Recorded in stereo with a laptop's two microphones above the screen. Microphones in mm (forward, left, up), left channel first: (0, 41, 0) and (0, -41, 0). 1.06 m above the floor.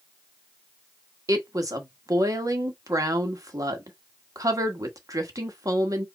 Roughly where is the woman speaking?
Right.